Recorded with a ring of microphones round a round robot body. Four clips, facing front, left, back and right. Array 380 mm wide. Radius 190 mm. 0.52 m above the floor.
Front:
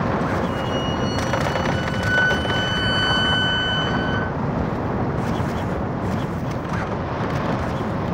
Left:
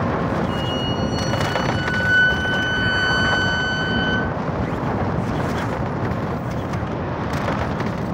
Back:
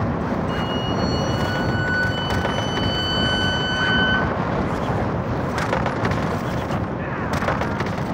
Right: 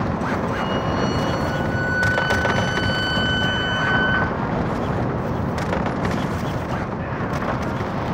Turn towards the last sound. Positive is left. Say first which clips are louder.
# right 1 dB, even
turn(degrees=95)